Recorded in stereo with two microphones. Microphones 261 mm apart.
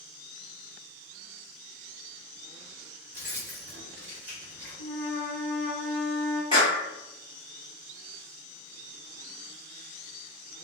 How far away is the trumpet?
About 1.0 m.